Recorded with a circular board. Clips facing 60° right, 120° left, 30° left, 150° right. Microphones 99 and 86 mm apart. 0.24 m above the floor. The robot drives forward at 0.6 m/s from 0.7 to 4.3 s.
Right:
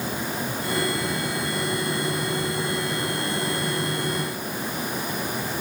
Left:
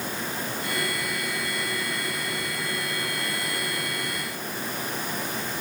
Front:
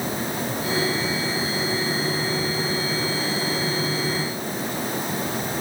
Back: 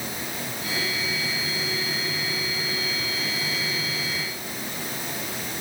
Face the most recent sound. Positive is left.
No sound to turn to.